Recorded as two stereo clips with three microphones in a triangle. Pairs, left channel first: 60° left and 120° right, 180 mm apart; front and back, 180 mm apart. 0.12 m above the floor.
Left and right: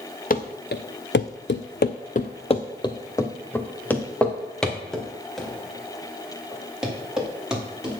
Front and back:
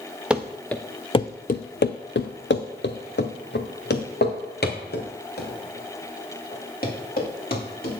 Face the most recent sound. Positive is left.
turn(degrees=-35)